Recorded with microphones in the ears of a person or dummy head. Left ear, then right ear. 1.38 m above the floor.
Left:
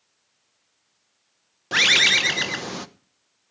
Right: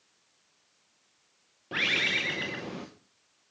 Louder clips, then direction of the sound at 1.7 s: Left 10 dB; 65° left (ahead or behind).